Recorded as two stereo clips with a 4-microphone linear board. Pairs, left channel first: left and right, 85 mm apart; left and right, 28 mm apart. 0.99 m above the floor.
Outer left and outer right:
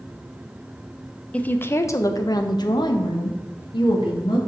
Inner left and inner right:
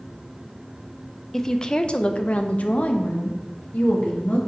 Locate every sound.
1.3 s a woman speaking: 15° left (ahead or behind), 0.7 m; by 4.4 s 65° left (ahead or behind), 1.9 m